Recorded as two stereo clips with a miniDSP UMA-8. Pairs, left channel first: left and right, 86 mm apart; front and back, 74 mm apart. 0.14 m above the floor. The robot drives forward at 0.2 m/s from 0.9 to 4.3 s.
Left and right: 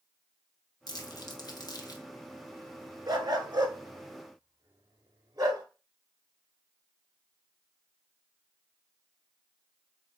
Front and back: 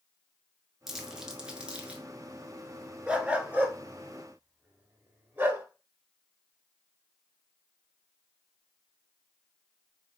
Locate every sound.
0.9 s crumpling: 95° left, 0.9 m; by 2.0 s 115° left, 1.0 m
3.1 s a dog barking: 110° right, 0.9 m; by 5.7 s 125° right, 1.0 m